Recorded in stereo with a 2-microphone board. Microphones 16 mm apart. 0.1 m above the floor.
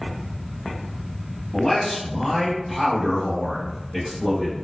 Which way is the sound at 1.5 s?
40° left (ahead or behind).